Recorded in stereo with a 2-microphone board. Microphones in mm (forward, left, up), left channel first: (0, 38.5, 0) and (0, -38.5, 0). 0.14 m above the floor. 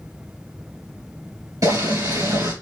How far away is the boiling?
About 2.5 m.